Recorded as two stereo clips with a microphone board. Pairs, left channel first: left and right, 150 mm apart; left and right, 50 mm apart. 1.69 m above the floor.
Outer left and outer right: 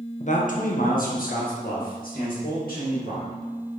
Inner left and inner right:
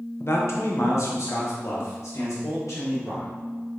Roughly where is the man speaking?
Left.